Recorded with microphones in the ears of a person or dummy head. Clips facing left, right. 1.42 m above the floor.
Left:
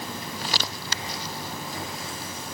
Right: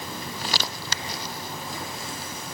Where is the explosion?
I don't hear an explosion.